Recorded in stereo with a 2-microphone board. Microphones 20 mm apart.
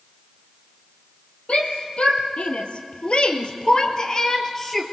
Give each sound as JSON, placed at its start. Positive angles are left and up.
{"t": 1.5, "sound": "a shout", "side_deg": 70, "distance_m": 3.0}